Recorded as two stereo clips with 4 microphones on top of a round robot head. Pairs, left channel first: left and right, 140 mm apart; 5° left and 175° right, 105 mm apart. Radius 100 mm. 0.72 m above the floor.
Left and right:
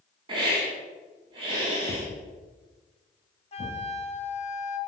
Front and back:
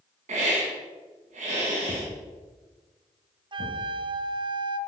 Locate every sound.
0.3 s a hiss: 155° right, 3 m
1.9 s a thud: 155° left, 2.5 m
3.5 s a flute: 140° left, 0.8 m